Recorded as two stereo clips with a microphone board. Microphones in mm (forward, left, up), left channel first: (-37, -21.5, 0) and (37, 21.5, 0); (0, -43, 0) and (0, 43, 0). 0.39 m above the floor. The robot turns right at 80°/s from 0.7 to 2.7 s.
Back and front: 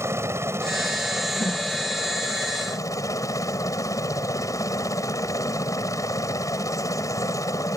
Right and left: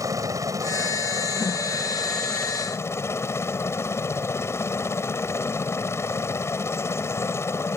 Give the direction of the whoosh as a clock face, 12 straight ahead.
5 o'clock.